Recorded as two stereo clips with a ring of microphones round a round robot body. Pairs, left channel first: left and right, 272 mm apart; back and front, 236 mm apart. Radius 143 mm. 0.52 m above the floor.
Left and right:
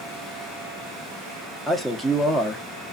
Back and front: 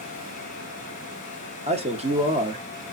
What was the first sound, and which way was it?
A man speaking, straight ahead.